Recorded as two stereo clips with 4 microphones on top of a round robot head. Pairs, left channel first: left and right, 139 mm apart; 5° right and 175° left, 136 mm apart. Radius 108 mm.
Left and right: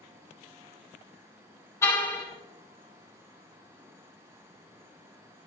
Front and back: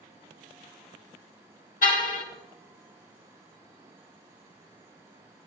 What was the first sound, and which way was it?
A car horn, 15° left.